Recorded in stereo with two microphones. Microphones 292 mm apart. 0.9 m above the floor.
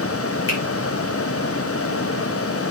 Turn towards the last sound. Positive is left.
turn(degrees=45)  # may be behind; listen again after turning